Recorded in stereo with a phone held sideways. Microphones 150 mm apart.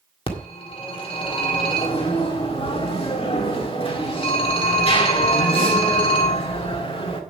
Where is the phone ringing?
40° left (ahead or behind), 1.7 m.